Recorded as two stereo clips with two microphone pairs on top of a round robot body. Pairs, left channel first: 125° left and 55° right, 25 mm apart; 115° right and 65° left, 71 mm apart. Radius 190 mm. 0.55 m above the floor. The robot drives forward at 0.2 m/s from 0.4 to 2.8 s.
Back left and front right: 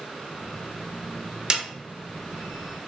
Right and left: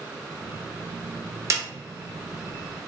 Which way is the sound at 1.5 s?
15° left.